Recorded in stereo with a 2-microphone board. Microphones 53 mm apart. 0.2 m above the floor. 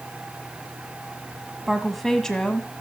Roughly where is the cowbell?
I don't hear a cowbell.